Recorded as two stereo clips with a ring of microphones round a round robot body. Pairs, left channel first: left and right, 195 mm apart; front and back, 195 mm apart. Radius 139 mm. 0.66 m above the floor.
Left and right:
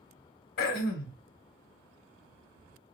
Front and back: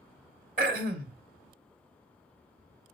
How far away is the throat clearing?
About 0.8 m.